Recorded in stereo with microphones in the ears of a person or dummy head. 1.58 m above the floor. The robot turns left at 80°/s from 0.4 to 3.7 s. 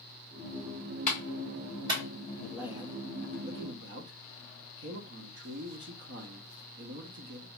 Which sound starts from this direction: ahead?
A man speaking, at 2.4 s.